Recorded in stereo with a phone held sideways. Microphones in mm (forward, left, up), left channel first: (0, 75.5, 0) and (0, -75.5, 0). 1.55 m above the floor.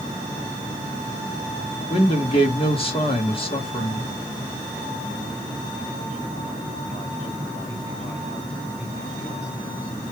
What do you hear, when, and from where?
1.9 s a man speaking: 40° left (ahead or behind), 1.7 m